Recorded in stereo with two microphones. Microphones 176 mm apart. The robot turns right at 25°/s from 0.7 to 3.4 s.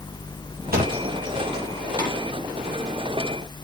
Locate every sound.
0.7 s a thud: 60° right (ahead or behind), 9.5 m; by 2.1 s 25° right (ahead or behind), 9.5 m